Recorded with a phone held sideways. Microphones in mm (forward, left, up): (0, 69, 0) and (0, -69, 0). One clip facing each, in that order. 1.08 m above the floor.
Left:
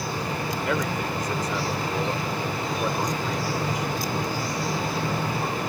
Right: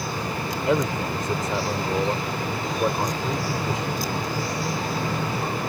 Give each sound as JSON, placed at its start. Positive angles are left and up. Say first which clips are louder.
{"t": 0.7, "sound": "a man speaking", "louder": "right 6 dB", "side_deg": -25}